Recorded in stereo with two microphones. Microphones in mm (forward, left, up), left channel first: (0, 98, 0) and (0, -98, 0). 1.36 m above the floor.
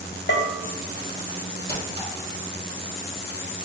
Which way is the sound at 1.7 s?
30° right (ahead or behind).